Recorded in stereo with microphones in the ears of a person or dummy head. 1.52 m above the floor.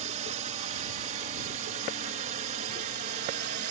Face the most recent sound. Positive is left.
turn(degrees=-40)  # may be behind; listen again after turning